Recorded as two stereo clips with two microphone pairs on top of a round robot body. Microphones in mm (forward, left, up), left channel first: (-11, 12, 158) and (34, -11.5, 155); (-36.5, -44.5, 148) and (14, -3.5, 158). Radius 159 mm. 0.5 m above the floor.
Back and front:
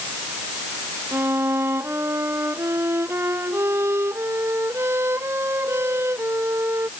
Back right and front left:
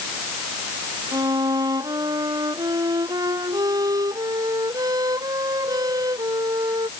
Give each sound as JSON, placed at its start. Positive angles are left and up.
{"t": 1.1, "sound": "a violin", "azimuth_deg": 10}